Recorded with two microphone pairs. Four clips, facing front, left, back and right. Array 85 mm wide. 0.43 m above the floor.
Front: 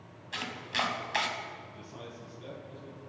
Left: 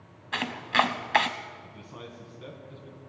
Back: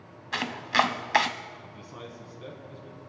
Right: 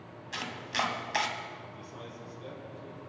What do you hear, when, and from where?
0.3 s chopping: 140° left, 0.7 m
1.6 s a man speaking: 135° left, 4.5 m